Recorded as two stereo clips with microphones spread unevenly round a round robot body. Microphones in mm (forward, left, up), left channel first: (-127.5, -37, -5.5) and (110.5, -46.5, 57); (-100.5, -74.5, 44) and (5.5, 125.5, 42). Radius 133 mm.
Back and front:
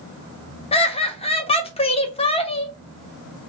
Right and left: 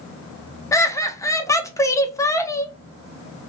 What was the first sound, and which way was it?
Laughter, 170° left.